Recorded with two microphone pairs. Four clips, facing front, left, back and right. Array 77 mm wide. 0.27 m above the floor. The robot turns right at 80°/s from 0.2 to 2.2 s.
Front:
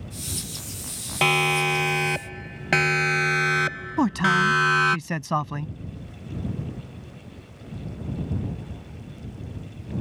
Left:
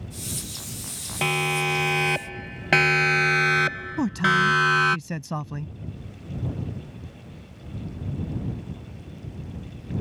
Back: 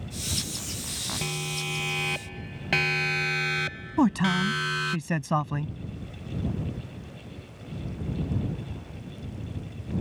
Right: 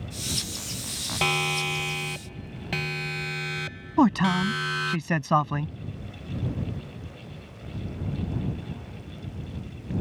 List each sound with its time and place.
1.2 s a siren: 10° right; by 5.0 s 40° left
4.0 s a man speaking: 75° right